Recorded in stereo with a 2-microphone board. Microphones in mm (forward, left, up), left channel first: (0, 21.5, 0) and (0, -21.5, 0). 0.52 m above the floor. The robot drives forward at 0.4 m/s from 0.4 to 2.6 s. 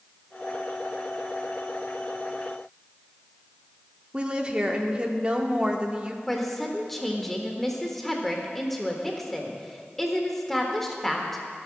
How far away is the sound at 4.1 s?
About 0.9 m.